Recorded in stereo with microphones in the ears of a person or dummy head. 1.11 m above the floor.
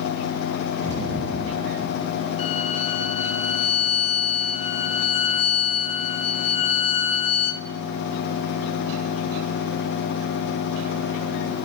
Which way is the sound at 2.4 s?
30° left (ahead or behind).